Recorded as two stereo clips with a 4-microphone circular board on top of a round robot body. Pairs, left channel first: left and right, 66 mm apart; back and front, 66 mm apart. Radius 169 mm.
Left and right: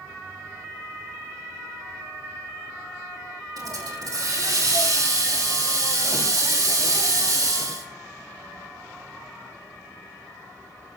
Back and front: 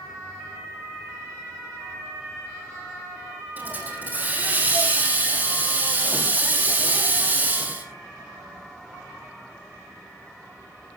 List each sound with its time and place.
3.6 s a hiss: 65° right, 5 m